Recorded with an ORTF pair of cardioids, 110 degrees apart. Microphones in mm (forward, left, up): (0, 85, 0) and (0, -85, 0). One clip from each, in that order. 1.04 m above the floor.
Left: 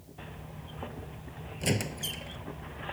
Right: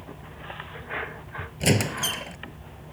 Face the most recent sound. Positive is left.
turn(degrees=-45)